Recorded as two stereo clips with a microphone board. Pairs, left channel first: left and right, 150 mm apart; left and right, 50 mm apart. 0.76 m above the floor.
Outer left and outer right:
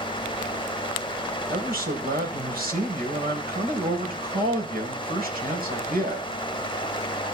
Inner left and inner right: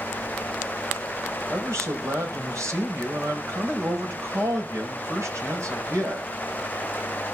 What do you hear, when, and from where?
1.5 s a man speaking: 75° right (ahead or behind), 4 m